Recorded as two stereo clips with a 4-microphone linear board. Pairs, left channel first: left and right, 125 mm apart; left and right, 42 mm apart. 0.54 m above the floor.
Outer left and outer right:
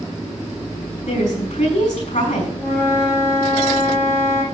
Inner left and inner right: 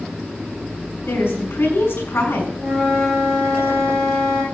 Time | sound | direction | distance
1.1 | a woman speaking | 80° left | 5.5 m
2.6 | a flute | 20° left (ahead or behind) | 6 m